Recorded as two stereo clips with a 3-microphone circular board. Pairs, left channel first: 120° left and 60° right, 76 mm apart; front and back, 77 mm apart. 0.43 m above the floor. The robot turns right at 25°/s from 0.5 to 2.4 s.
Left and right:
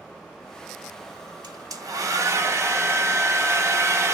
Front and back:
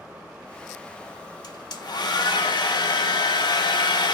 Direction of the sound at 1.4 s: 30° right.